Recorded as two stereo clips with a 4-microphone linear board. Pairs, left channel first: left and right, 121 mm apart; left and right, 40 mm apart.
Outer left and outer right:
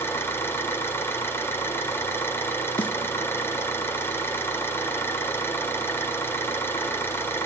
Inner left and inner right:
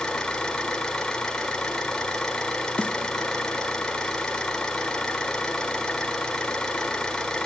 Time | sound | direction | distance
0.0 | an engine running | 20° left (ahead or behind) | 2 m
2.8 | a snare drum | 45° left (ahead or behind) | 1.0 m